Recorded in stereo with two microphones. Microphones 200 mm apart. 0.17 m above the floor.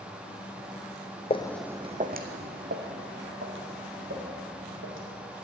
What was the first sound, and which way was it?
Footsteps, 30° left (ahead or behind).